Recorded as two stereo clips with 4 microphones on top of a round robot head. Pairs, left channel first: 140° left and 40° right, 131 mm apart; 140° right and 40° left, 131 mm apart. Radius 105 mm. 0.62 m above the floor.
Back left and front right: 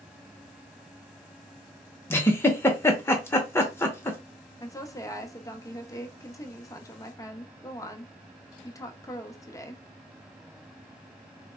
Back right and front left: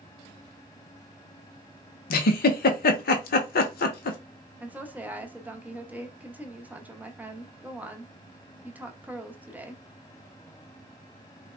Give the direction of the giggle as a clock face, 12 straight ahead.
5 o'clock.